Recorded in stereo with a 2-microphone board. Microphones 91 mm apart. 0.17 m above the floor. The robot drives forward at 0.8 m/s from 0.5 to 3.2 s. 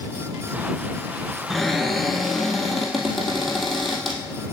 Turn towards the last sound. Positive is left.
turn(degrees=0)  # may be behind; listen again after turning